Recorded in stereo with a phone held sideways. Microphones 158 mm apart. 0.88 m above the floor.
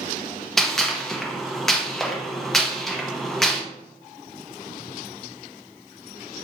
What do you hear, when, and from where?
0.6 s a gunshot: centre (ahead or behind), 0.7 m